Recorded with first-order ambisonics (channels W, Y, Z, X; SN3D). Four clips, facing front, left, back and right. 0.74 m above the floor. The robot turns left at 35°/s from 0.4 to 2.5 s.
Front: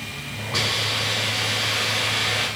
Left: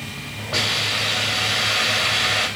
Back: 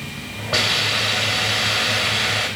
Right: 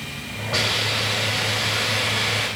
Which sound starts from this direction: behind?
A hiss, at 0.5 s.